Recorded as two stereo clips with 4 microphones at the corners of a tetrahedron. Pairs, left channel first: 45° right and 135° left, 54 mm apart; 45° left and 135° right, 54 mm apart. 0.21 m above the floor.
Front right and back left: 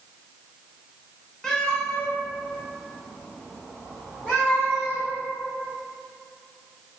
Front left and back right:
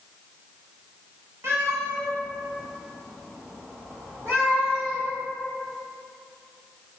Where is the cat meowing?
125° right, 0.8 m; by 5.1 s 100° right, 3 m.